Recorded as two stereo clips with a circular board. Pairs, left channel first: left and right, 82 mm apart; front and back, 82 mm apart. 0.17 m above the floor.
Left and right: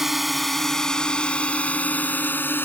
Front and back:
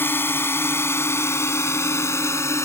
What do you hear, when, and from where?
0.0 s a drone: 10° right; by 2.7 s 35° left